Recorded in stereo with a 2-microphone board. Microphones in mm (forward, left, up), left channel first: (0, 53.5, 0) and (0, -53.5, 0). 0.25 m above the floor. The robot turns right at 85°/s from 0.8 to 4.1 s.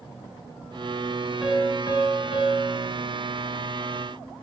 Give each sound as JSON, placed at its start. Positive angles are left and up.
{"t": 1.4, "sound": "a piano", "azimuth_deg": -5, "distance_m": 4.0}